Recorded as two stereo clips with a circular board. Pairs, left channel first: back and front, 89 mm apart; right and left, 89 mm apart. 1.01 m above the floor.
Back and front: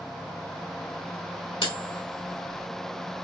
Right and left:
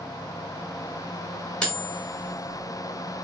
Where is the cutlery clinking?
170° right, 1.6 m.